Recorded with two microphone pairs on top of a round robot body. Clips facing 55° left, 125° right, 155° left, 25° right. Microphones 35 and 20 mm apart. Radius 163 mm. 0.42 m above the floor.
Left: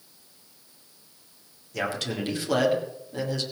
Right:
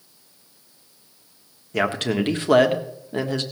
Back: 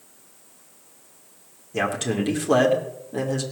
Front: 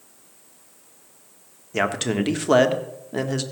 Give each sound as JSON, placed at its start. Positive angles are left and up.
{"t": 1.7, "sound": "a man speaking", "azimuth_deg": -90, "distance_m": 1.7}